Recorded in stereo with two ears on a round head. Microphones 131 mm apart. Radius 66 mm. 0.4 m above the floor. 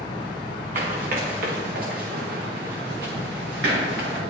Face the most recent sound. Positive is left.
turn(degrees=-85)